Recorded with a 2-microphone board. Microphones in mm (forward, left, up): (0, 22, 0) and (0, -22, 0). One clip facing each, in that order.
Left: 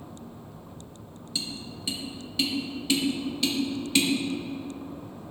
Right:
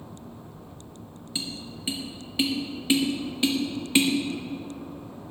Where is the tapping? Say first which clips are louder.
Even; 20° right (ahead or behind), 1.1 m.